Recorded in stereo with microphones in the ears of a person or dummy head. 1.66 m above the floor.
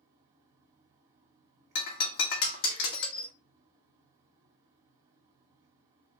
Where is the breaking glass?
55° left (ahead or behind), 1.7 m.